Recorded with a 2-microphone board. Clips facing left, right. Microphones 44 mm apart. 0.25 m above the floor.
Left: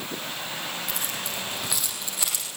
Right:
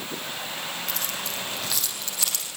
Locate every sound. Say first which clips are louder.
0.9 s keys jangling: even; 10° left (ahead or behind), 9 m